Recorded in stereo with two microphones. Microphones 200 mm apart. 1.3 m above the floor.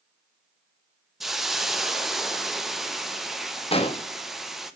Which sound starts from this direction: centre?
A hiss, at 1.2 s.